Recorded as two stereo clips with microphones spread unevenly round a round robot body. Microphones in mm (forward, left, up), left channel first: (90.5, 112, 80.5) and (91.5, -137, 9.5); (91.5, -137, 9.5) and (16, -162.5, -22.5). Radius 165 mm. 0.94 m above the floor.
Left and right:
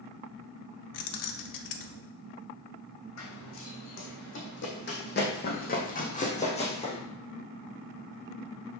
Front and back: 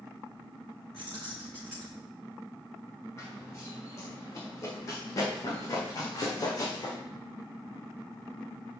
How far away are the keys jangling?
About 0.8 m.